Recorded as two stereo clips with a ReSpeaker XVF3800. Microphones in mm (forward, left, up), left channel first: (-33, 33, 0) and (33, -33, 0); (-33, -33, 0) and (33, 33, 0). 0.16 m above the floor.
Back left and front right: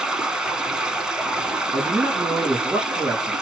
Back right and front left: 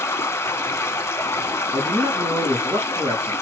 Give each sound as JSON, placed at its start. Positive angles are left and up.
{"t": 0.0, "sound": "running water", "azimuth_deg": -120, "distance_m": 0.7}
{"t": 1.7, "sound": "a man speaking", "azimuth_deg": 5, "distance_m": 2.5}